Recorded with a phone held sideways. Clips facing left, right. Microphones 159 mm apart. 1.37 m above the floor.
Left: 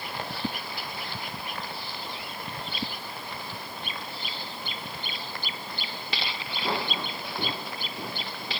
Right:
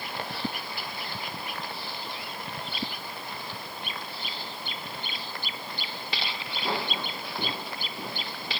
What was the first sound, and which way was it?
Only background noise.